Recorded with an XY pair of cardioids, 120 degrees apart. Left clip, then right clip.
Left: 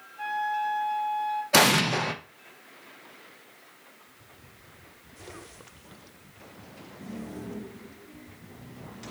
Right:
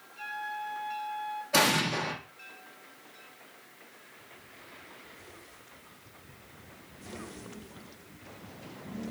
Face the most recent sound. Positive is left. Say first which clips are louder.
# left 4 dB
turn(degrees=40)